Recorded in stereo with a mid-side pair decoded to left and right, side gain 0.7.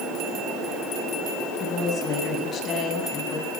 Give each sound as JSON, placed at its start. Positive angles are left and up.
{"t": 1.6, "sound": "a woman speaking", "azimuth_deg": 35, "distance_m": 8.0}